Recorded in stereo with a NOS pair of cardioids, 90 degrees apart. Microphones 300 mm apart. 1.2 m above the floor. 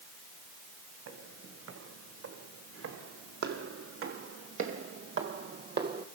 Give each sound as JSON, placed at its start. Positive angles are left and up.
{"t": 1.1, "sound": "footsteps", "azimuth_deg": -60, "distance_m": 4.5}